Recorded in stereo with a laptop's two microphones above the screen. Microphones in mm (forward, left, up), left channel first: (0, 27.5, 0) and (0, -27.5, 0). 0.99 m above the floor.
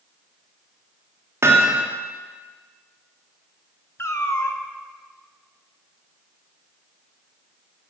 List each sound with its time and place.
1.4 s hammering: 55° right (ahead or behind), 1.5 m
4.0 s a cat meowing: 55° left (ahead or behind), 0.7 m